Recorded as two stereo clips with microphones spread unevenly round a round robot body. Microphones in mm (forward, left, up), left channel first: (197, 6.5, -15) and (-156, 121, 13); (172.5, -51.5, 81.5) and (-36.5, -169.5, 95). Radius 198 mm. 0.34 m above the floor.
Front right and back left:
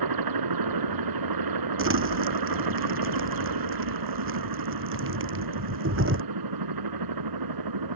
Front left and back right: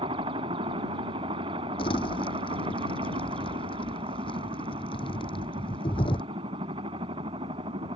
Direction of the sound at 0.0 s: 135° left.